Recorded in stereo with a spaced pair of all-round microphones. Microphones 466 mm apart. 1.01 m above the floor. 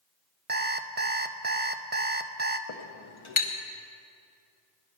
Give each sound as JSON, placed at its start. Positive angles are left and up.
{"t": 0.5, "sound": "an alarm clock", "side_deg": -20, "distance_m": 0.5}
{"t": 2.7, "sound": "a clink", "side_deg": 75, "distance_m": 1.0}